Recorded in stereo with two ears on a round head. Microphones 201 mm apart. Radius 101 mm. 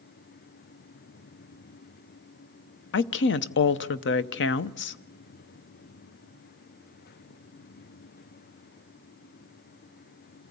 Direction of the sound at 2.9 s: 55° left (ahead or behind).